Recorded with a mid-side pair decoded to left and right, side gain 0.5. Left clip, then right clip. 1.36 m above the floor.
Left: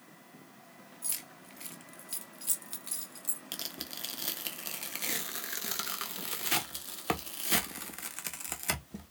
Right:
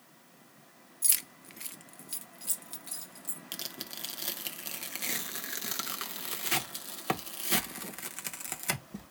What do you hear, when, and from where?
1.0 s keys jangling: 60° right, 0.9 m; by 3.4 s 30° left, 2 m
3.5 s tearing paper: 5° left, 1.4 m